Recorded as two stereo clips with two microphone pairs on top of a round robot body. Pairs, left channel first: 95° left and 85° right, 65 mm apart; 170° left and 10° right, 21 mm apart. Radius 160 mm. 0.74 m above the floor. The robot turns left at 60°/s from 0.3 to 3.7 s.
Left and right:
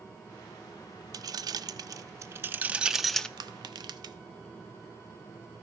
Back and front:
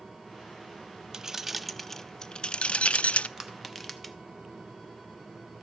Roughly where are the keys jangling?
Ahead right.